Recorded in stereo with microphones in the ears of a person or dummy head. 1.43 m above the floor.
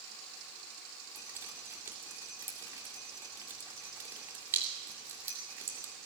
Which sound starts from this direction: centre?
Dripping, at 1.1 s.